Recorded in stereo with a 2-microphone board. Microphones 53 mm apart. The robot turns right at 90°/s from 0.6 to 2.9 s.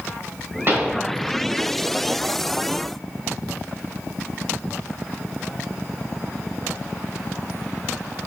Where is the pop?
45° right (ahead or behind), 1.7 m; by 1.0 s 15° right (ahead or behind), 1.7 m.